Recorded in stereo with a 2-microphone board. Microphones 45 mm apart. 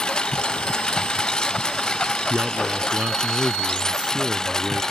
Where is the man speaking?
25° right (ahead or behind).